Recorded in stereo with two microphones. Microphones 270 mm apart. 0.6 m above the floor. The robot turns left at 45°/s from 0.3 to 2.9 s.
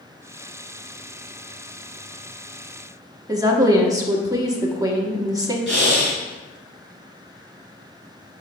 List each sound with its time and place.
3.3 s a woman speaking: 15° right (ahead or behind), 1.0 m
5.7 s breathing: 75° left (ahead or behind), 3 m